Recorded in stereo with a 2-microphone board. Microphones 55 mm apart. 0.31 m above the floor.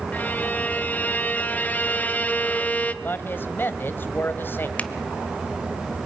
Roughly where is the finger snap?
Left.